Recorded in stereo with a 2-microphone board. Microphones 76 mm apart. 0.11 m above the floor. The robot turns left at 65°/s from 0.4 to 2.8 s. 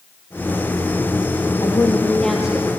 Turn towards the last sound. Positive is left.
turn(degrees=-25)